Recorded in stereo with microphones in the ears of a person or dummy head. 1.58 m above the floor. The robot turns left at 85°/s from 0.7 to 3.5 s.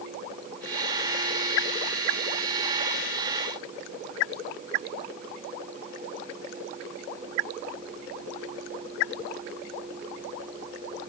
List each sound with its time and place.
Only background noise.